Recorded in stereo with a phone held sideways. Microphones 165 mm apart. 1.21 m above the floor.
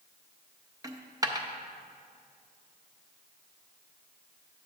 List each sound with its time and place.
0.8 s a dropped coin: 20° right (ahead or behind), 0.5 m